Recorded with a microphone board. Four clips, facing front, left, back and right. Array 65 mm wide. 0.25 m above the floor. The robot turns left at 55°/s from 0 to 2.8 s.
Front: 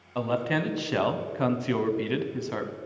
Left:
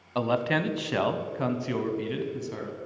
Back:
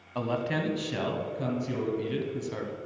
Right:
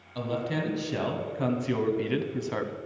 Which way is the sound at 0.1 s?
85° left.